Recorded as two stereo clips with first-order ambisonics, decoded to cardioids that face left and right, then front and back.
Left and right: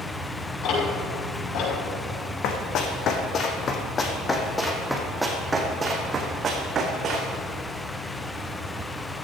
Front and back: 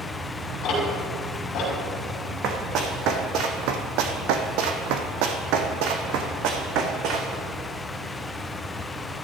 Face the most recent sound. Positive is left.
turn(degrees=-145)